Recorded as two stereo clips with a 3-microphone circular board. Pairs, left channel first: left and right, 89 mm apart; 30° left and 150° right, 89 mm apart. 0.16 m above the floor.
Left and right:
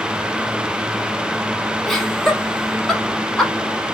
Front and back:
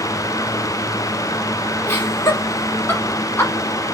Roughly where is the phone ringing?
No phone ringing in this recording.